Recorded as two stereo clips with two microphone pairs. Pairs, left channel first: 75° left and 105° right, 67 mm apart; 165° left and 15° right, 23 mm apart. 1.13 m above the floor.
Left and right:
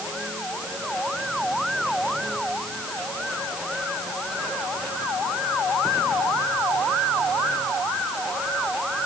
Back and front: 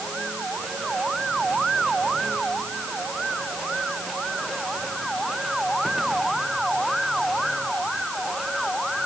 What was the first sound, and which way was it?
Only background noise.